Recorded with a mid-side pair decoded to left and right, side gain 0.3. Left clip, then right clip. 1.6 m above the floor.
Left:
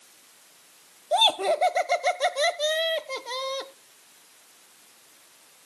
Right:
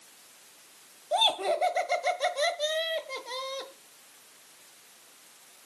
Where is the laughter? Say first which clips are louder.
Left 4 dB; 50° left, 1.2 m.